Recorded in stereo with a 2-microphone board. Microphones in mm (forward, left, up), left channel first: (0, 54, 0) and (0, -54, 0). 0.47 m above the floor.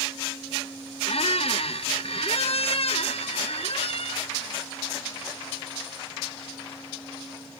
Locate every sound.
1.1 s a squeak: 65° left (ahead or behind), 0.5 m